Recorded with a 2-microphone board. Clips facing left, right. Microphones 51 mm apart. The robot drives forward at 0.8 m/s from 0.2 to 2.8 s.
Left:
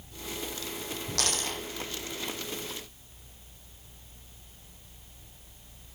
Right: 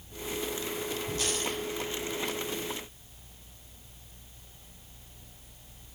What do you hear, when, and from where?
1.2 s a dropped coin: 70° left (ahead or behind), 3.5 m; by 1.6 s 75° left (ahead or behind), 3.5 m